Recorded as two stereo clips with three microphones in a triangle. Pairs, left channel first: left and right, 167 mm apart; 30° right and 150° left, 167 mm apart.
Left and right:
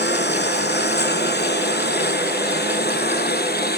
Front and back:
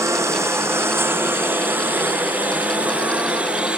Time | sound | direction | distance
0.0 | a lawn mower | 75° left | ?